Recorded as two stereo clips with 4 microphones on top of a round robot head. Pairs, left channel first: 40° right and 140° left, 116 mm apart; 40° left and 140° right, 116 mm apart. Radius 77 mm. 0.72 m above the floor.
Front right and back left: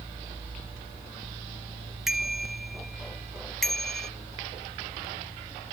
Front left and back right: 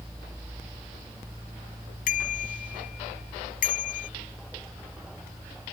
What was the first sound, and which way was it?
A bicycle bell, 50° left.